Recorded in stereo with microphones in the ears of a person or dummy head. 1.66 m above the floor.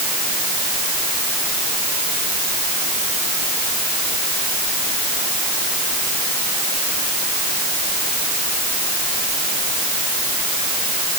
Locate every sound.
Only background noise.